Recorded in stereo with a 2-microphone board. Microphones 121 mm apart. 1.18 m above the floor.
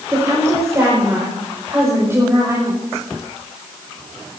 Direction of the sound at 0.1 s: 25° right (ahead or behind).